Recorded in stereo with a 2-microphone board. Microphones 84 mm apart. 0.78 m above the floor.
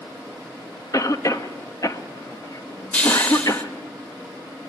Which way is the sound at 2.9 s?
20° left (ahead or behind).